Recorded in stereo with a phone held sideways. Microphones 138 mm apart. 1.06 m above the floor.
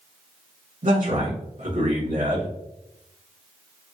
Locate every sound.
0.8 s a man speaking: 75° right (ahead or behind), 2 m